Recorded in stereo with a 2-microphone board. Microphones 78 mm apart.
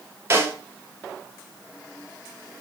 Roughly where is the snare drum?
Right.